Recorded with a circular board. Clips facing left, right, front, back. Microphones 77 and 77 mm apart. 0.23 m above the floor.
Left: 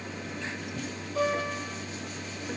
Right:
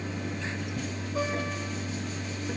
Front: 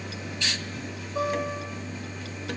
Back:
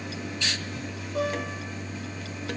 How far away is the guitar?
About 6.5 m.